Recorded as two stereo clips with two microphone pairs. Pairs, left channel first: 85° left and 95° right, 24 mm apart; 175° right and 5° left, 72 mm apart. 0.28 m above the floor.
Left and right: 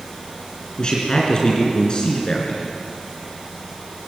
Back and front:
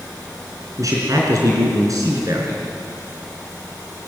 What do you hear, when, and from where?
0.8 s a man speaking: 40° left, 4 m